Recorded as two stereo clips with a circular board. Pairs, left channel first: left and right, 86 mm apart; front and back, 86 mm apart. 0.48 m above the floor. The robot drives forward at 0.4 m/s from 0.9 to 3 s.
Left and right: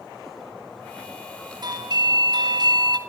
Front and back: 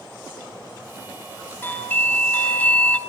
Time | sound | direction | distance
1.6 | a doorbell | 65° right | 3 m